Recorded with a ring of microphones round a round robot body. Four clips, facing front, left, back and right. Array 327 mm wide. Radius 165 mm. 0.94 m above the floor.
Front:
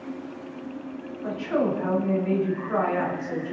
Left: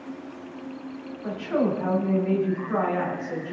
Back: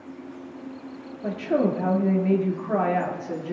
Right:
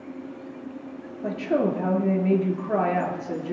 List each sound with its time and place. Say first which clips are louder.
1.2 s a woman speaking: right 1 dB, back 2 dB; 135° right, 2 m